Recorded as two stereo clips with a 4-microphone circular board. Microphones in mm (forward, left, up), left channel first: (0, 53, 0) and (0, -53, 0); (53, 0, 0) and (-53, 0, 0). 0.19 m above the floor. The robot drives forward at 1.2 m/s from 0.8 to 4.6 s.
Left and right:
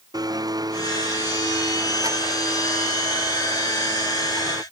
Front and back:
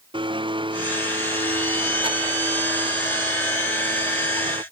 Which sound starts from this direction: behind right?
A blender, at 0.1 s.